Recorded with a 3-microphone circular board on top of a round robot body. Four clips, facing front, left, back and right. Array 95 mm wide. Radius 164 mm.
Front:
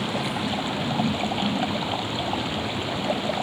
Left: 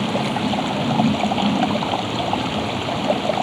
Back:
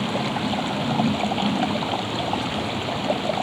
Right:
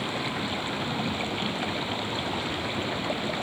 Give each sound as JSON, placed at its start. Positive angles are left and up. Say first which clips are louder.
{"t": 0.0, "sound": "running water", "louder": "left 10 dB, back 2 dB", "azimuth_deg": 105}